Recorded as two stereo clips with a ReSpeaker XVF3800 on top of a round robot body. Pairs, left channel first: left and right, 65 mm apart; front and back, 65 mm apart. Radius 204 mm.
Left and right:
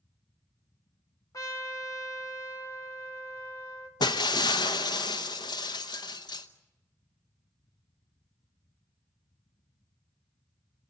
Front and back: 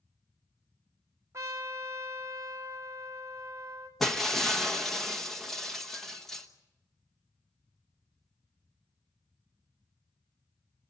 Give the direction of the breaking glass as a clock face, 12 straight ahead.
9 o'clock.